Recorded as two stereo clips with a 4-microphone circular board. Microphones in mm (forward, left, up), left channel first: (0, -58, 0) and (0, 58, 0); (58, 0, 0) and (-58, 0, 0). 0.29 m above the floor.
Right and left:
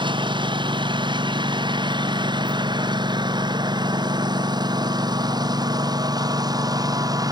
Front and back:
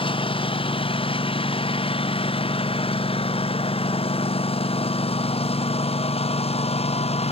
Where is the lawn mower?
40° left; by 7.3 s 30° left.